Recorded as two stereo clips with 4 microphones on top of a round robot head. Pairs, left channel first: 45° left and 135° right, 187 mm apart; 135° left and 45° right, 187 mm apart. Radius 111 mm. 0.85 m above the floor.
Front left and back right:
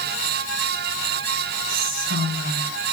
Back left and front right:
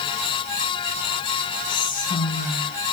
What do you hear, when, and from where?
1.7 s whispering: 175° right, 5.5 m